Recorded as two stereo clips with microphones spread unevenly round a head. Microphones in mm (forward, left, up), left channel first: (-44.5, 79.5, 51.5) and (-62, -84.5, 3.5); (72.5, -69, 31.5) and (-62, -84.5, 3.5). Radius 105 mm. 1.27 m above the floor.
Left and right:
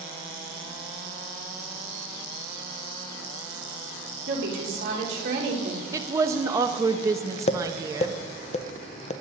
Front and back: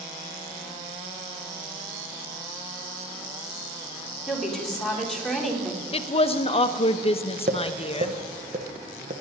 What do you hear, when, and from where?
4.3 s a woman speaking: 80° right, 3.5 m
5.9 s a woman speaking: 40° right, 0.8 m
7.5 s tapping: 135° left, 0.7 m